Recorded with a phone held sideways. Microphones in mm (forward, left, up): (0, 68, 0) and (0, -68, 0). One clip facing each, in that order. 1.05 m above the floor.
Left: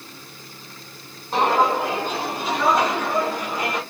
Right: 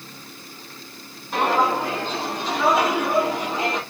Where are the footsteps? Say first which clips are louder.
Left 1 dB; 30° left (ahead or behind), 1.7 m; by 3.8 s 35° right (ahead or behind), 1.5 m.